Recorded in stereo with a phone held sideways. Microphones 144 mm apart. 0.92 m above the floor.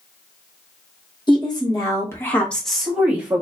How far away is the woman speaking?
About 1.1 m.